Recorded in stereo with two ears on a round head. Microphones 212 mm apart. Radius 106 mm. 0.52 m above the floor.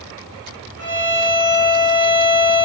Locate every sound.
0.8 s a violin: 5° right (ahead or behind), 1.4 m